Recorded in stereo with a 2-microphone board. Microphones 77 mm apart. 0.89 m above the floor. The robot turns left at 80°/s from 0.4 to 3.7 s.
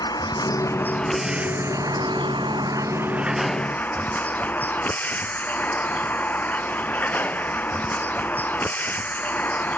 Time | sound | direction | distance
0.0 | a vehicle | 60° left | ?